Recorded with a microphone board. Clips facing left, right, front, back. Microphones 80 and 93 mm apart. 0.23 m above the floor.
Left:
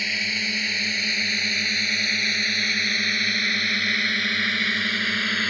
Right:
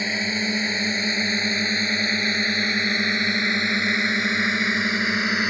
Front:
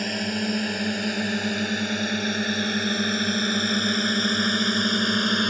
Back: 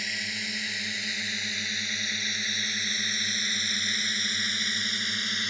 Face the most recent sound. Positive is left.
turn(degrees=-20)